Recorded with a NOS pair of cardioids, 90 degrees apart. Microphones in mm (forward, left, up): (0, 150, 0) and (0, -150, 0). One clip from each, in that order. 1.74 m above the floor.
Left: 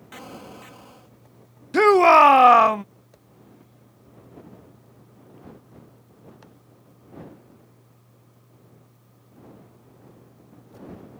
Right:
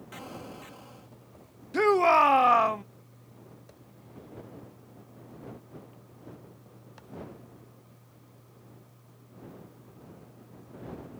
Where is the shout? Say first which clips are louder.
Left 8 dB; 45° left.